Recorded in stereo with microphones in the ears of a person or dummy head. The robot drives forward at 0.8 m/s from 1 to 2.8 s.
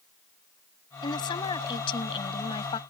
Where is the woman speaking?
25° left (ahead or behind); by 2.8 s 30° left (ahead or behind).